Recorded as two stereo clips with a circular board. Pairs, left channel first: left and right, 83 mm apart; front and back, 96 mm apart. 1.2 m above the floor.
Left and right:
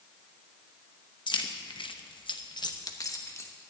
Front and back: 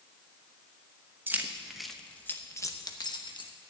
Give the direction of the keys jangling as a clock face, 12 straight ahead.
8 o'clock.